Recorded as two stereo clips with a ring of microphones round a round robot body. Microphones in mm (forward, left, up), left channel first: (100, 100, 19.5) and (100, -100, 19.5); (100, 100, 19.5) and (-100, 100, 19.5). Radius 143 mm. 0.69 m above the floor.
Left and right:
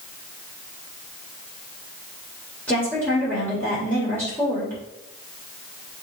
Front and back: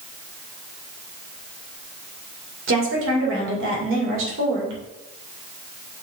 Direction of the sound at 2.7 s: 175° left.